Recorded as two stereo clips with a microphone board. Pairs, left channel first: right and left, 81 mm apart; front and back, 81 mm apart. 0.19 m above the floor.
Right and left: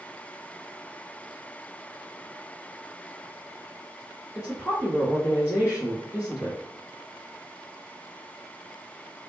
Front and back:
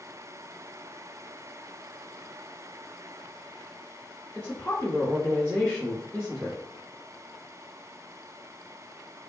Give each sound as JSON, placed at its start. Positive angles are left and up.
{"t": 4.3, "sound": "a woman speaking", "azimuth_deg": -65, "distance_m": 1.4}